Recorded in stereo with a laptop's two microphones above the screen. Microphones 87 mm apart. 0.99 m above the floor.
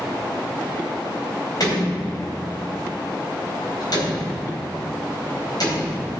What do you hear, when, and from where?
1.6 s a door slam: 50° left (ahead or behind), 3.5 m